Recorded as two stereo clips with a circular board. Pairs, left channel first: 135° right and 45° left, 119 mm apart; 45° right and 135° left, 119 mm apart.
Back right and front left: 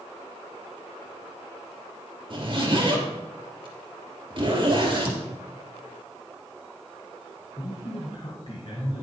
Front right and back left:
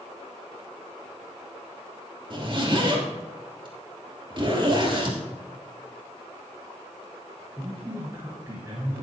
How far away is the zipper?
About 3 m.